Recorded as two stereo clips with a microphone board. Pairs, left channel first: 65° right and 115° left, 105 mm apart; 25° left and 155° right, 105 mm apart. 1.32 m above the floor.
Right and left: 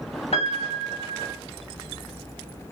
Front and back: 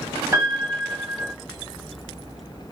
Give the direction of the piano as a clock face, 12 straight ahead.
3 o'clock.